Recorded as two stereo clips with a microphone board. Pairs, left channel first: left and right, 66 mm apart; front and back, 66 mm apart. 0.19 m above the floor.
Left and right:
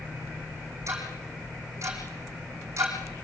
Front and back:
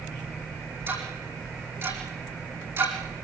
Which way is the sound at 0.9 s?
130° right.